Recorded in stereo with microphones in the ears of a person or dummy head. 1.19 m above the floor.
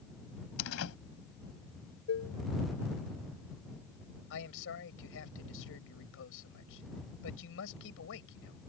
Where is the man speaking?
70° left (ahead or behind).